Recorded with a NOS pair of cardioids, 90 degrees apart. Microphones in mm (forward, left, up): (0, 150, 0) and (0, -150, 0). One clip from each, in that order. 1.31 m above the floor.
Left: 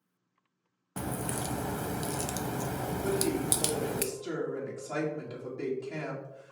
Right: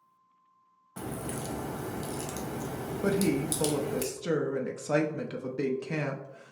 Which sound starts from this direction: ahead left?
A crack, at 1.0 s.